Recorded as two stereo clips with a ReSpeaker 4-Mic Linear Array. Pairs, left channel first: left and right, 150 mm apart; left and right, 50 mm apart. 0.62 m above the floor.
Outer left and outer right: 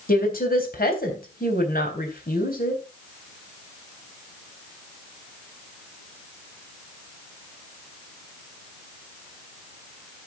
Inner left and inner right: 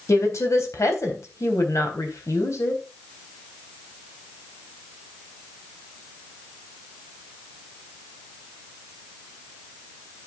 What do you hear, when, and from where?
0.1 s a woman speaking: 70° left (ahead or behind), 3.5 m